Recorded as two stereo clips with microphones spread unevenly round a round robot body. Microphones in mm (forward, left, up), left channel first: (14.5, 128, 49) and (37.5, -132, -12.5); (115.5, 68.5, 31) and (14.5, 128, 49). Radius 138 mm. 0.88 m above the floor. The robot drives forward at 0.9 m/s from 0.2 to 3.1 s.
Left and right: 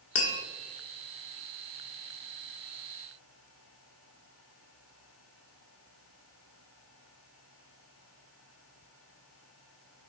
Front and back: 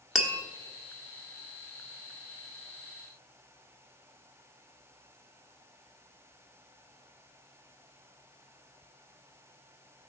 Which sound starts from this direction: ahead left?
Tapping, at 0.1 s.